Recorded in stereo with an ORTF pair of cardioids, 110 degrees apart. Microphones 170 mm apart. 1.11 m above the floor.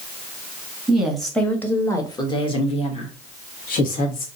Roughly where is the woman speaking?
Ahead.